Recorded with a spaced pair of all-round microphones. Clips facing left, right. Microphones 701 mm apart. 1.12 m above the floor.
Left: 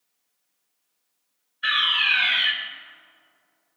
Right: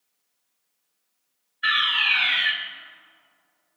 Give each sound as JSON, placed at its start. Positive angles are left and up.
{"t": 1.6, "sound": "a fire alarm", "side_deg": 5, "distance_m": 1.6}